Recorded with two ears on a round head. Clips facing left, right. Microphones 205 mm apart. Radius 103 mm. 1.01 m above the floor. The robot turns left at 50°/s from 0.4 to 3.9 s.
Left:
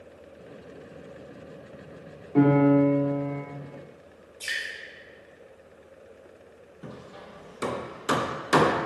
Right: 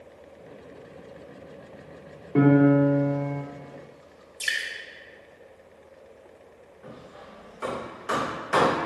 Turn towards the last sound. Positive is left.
turn(degrees=50)  # may be behind; listen again after turning